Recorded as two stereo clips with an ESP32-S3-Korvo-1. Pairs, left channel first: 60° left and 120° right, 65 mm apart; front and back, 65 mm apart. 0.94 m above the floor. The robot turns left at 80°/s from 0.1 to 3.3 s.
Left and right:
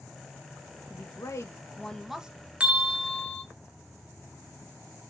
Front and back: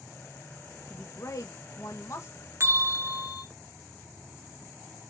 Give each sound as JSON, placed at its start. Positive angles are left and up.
{"t": 0.9, "sound": "a woman speaking", "azimuth_deg": 65, "distance_m": 0.9}
{"t": 2.6, "sound": "a bell", "azimuth_deg": 180, "distance_m": 0.7}